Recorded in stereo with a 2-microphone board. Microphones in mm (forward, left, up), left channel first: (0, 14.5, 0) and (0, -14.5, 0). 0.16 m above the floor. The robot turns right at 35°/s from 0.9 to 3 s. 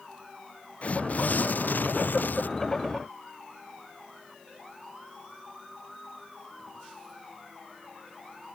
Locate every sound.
0.8 s tearing paper: 50° left; by 2.5 s 105° left